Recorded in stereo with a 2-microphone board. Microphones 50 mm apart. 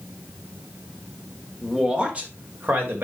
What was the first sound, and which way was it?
A man speaking, 10° right (ahead or behind).